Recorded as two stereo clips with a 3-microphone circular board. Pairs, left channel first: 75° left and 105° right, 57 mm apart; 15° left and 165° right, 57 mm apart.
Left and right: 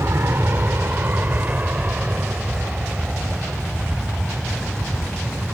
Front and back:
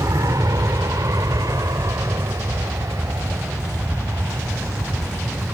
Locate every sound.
0.0 s an aircraft: 150° right; by 5.5 s 170° left